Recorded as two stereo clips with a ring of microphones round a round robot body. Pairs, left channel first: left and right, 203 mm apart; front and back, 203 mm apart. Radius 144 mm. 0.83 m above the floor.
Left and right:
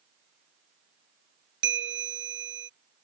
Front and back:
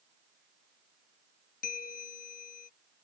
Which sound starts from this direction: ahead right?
A bell, at 1.6 s.